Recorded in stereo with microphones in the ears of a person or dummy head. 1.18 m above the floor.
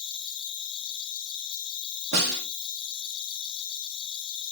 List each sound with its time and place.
0.0 s an insect: 20° left (ahead or behind), 0.7 m
2.1 s a snare drum: 75° right (ahead or behind), 1.1 m